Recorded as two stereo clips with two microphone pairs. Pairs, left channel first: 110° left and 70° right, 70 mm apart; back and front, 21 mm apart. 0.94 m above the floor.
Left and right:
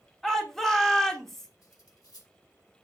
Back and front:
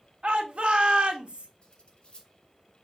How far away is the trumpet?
No trumpet in this recording.